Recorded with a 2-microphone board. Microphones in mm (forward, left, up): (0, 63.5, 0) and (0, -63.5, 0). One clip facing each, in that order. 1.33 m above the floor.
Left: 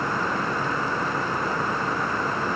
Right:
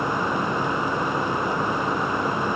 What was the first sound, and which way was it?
Only background noise.